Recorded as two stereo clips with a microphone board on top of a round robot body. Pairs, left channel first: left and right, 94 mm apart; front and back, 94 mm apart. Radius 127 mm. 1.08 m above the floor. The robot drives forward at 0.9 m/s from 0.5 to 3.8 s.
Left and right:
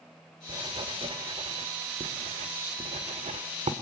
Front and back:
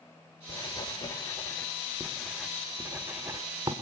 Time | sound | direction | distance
0.5 | writing | 45° right | 2.5 m